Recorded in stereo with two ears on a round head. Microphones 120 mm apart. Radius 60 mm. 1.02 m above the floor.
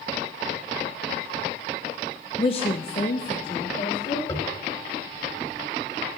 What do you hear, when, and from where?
2.4 s a woman speaking: 25° left (ahead or behind), 0.6 m; by 4.2 s 60° left (ahead or behind), 3 m
4.3 s tapping: 30° left (ahead or behind), 2.5 m